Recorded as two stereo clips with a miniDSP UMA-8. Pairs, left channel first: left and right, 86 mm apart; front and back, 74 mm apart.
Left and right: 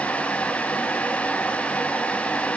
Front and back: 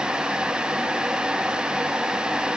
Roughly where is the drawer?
No drawer in this recording.